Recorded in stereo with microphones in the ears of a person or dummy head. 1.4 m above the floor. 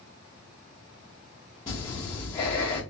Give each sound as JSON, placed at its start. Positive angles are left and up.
{"t": 1.7, "sound": "breathing", "side_deg": 20, "distance_m": 0.9}